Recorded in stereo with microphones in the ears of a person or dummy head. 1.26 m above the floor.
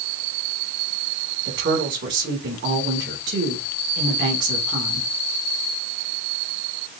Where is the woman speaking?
55° right (ahead or behind), 2 m.